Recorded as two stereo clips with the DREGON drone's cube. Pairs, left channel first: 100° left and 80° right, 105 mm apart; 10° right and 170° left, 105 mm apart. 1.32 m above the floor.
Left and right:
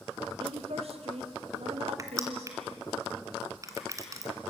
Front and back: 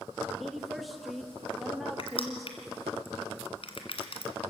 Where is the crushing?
25° right, 2 m.